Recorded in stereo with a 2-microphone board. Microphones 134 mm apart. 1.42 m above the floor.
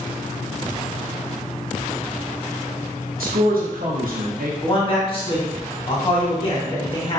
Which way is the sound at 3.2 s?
80° right.